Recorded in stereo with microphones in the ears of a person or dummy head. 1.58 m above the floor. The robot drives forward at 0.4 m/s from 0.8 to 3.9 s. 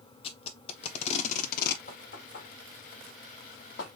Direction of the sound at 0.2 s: 35° left (ahead or behind).